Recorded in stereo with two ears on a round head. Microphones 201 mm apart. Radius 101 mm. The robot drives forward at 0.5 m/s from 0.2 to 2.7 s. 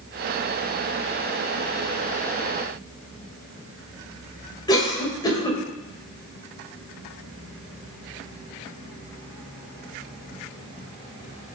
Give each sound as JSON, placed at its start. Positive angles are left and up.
{"t": 4.7, "sound": "a cough", "side_deg": 20, "distance_m": 4.0}